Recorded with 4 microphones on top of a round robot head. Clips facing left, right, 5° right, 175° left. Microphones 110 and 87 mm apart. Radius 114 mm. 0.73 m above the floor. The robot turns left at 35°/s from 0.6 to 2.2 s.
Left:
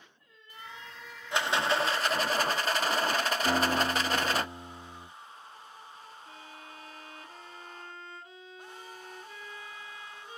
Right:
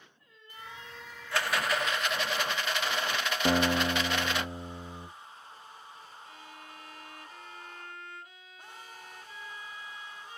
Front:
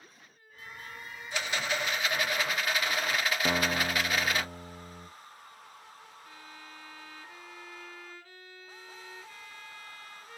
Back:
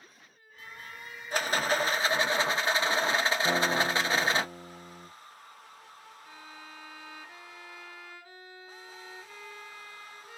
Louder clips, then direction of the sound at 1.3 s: Left 2 dB, back 5 dB; 155° left.